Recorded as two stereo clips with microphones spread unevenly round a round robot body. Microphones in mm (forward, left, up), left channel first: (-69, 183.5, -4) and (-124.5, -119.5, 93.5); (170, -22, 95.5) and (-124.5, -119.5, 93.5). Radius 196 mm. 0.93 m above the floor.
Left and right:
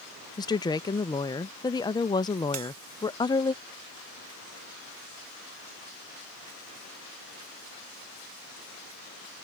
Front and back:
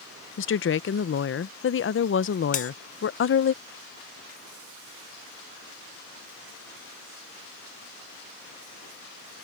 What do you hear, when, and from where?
0.4 s a woman speaking: 40° left
2.5 s a bell: 45° right